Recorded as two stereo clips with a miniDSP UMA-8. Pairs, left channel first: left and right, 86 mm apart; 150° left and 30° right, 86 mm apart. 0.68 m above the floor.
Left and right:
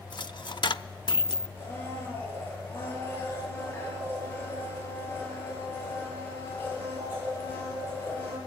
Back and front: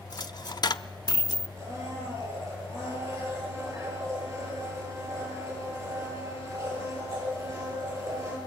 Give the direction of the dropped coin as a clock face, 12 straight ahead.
8 o'clock.